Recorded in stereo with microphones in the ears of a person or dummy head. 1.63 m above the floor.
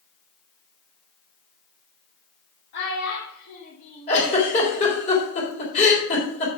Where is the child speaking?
70° left (ahead or behind), 2.5 m; by 5.0 s 5° right (ahead or behind), 1.9 m.